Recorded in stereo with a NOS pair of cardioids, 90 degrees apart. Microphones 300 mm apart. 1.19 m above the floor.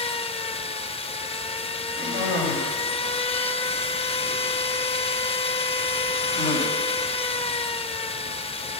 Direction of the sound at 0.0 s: 20° left.